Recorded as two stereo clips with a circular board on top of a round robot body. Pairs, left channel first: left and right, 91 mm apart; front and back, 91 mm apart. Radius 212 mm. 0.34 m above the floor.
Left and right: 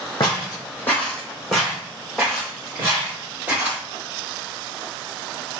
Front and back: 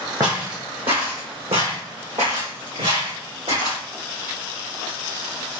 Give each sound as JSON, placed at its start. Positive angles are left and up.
{"t": 0.2, "sound": "footsteps", "azimuth_deg": 130, "distance_m": 0.8}